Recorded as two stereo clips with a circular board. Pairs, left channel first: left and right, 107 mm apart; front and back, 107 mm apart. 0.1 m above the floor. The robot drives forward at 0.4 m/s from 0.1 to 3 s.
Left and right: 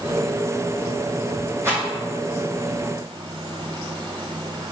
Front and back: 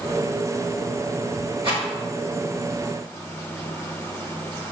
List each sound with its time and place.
1.6 s a rattle: 155° right, 4 m